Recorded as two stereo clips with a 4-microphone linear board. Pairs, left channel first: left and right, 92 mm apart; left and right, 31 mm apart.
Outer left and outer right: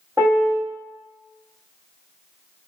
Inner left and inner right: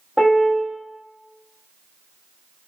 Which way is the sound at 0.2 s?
30° right (ahead or behind).